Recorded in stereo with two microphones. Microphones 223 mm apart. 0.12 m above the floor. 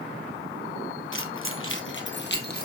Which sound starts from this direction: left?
Keys jangling, at 1.1 s.